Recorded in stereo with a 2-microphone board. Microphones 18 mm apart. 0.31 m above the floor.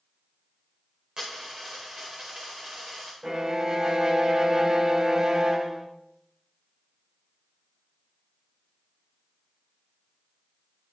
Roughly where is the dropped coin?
Right.